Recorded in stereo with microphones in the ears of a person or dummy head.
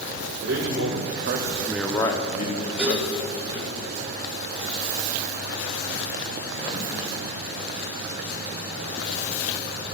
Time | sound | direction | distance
0.4 | a man speaking | 80° right | 1.7 m
2.8 | dishes clattering | centre (ahead or behind) | 4 m